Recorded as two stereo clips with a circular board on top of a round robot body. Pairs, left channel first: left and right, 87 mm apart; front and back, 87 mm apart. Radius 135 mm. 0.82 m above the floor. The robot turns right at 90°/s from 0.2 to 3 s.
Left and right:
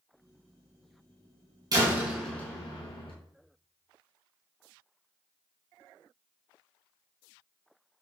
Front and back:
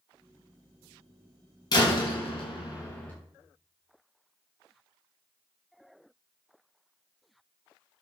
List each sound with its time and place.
1.7 s a door slam: 45° right, 6.5 m; by 3.1 s 70° left, 6.5 m